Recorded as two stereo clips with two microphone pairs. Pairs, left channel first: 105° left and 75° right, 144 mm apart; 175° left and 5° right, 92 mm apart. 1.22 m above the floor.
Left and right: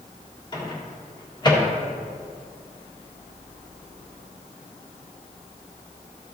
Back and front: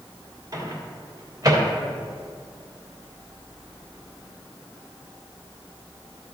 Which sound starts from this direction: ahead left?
A microwave, at 0.5 s.